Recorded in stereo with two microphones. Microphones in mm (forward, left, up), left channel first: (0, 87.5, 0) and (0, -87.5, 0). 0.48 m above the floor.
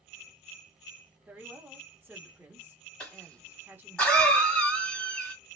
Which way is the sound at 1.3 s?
10° right (ahead or behind).